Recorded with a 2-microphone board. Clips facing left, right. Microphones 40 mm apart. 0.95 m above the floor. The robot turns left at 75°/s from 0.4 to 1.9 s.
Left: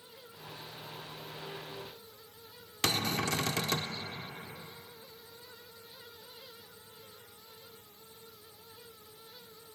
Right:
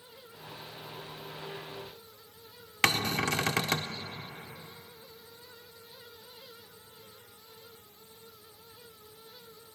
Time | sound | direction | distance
2.8 | a cupboard door | 45° right (ahead or behind) | 0.7 m